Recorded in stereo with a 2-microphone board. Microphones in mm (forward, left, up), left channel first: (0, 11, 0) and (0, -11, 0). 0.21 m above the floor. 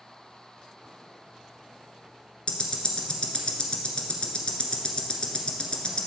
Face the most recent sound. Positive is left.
turn(degrees=45)  # may be behind; listen again after turning